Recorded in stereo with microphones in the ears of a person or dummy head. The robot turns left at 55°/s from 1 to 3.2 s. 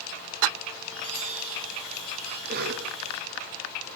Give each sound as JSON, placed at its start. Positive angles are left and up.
{"t": 0.9, "sound": "a chime", "azimuth_deg": -85, "distance_m": 5.0}
{"t": 2.5, "sound": "a cough", "side_deg": -55, "distance_m": 0.7}